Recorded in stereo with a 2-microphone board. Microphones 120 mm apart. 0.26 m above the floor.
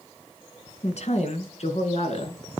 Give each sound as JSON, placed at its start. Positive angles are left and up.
{"t": 0.8, "sound": "a woman speaking", "side_deg": 65, "distance_m": 2.5}